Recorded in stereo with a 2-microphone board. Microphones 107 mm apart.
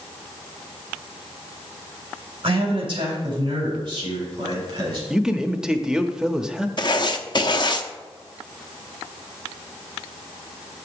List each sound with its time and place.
2.4 s a man speaking: 55° right (ahead or behind), 3.5 m; by 5.0 s 40° right (ahead or behind), 5 m
5.1 s a man speaking: 5° right (ahead or behind), 0.7 m
6.8 s writing: 45° left (ahead or behind), 0.7 m